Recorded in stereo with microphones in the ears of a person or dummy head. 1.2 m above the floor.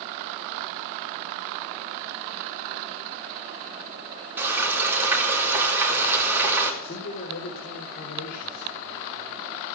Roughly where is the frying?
Centre.